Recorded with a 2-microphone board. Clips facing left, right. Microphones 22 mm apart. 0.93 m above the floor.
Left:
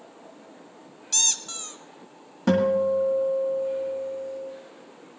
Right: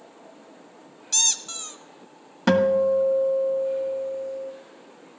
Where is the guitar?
35° right (ahead or behind), 1.7 m.